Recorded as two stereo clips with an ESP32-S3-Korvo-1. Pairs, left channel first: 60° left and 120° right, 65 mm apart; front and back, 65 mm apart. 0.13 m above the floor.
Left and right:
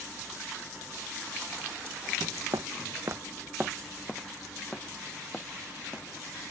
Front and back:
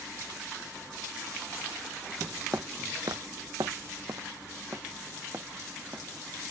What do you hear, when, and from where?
2.5 s footsteps: 125° right; by 6.1 s 125° left